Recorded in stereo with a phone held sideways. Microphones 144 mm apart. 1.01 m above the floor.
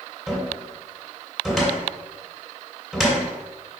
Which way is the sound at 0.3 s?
Centre (ahead or behind).